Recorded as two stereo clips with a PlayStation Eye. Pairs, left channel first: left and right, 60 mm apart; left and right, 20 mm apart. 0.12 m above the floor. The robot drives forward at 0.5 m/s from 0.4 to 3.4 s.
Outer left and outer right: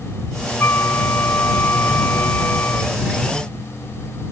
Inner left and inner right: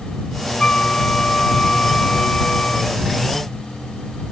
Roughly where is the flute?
Left.